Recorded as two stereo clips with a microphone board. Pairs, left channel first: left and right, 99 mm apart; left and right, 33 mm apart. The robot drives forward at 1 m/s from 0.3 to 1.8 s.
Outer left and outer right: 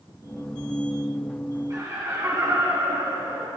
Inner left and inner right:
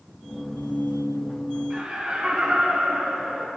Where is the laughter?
35° right (ahead or behind), 6 m.